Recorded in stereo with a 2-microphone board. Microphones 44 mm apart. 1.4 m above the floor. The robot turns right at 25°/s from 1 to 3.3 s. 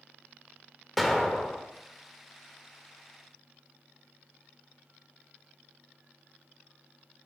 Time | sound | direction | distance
1.0 | an explosion | centre (ahead or behind) | 1.1 m